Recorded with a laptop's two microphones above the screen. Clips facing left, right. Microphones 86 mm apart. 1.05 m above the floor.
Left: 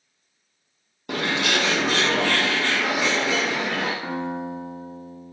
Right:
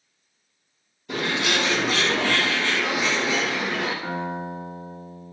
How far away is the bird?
About 0.5 m.